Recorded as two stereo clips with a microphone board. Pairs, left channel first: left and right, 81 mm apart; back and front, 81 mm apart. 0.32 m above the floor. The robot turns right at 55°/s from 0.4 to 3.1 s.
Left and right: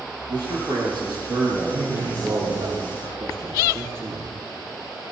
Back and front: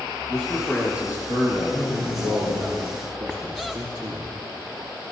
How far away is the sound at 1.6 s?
About 5 m.